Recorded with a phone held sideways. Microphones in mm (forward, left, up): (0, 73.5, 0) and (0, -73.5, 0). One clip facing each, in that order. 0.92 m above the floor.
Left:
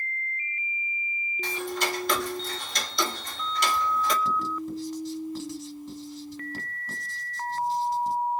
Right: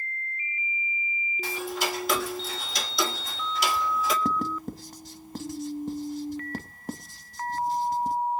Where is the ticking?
5° right (ahead or behind), 1.6 m.